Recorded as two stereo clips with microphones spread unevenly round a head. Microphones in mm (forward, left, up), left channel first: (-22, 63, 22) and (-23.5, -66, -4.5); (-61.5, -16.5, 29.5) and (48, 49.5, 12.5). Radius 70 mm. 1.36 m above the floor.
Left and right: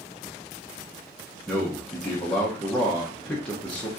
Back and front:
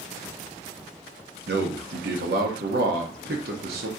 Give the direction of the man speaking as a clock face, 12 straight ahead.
12 o'clock.